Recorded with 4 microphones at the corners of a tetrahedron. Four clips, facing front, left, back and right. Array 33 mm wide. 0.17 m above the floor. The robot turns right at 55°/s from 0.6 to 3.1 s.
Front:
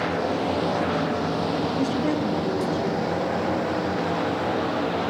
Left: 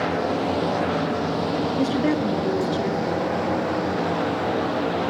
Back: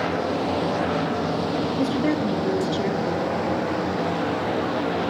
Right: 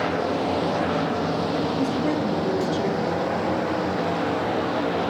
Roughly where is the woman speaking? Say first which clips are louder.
Left 2 dB, back 1 dB; left.